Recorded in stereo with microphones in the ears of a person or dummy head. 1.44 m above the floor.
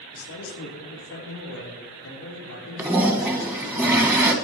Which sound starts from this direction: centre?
A toilet flushing, at 2.8 s.